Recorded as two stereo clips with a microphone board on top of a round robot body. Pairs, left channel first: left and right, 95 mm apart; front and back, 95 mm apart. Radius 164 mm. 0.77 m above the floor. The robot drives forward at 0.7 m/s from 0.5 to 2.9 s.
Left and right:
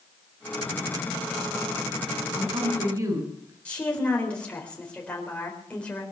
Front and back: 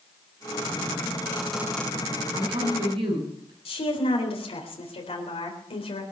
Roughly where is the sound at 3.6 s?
Ahead.